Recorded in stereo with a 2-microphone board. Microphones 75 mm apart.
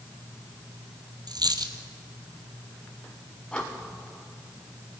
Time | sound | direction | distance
1.3 | a dropped coin | 65° right (ahead or behind) | 1.9 m
3.5 | breathing | 15° left (ahead or behind) | 4 m